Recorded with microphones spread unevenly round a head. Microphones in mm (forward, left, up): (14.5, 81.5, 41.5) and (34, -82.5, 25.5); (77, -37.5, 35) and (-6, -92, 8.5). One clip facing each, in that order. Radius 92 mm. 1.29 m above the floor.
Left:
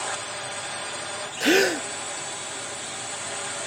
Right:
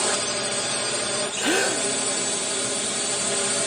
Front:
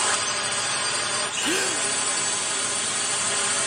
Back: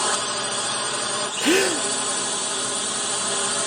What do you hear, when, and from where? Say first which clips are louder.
0.0 s a drone: right 7 dB, back 2 dB; 90° right
1.4 s a gasp: left 5 dB, back 9 dB; 165° left